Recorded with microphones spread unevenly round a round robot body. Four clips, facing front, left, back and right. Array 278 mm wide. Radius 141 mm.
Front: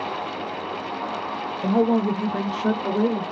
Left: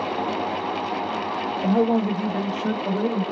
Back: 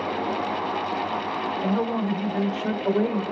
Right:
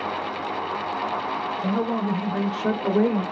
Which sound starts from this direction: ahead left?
A man speaking, at 1.6 s.